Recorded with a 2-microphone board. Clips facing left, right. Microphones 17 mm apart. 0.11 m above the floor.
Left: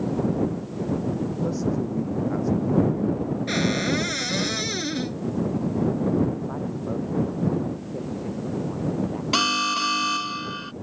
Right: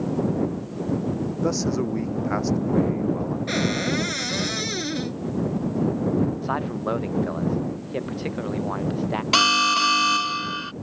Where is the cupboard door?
Centre (ahead or behind).